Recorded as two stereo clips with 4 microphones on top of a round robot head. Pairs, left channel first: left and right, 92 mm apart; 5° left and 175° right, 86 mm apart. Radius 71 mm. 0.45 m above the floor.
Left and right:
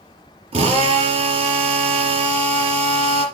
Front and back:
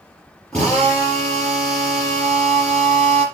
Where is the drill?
75° right, 4.5 m.